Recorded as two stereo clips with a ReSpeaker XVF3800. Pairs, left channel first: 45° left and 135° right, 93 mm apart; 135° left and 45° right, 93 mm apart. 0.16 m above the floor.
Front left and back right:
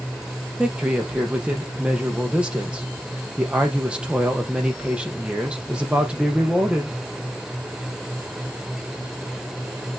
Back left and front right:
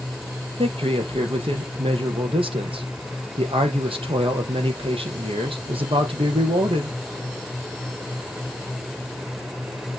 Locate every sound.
0.6 s a man speaking: 55° right, 5 m